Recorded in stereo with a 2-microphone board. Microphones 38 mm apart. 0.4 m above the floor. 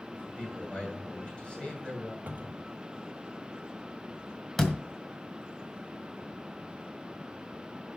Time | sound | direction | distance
0.1 | a man speaking | 25° left (ahead or behind) | 7 m
2.3 | a cupboard door | 55° right (ahead or behind) | 1.3 m
4.6 | a door slam | 10° left (ahead or behind) | 1.7 m